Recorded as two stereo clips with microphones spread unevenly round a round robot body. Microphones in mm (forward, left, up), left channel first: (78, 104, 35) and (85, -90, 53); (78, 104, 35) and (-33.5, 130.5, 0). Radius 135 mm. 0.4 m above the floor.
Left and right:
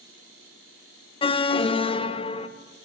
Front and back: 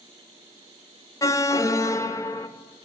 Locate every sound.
1.2 s an alarm: 60° left, 0.6 m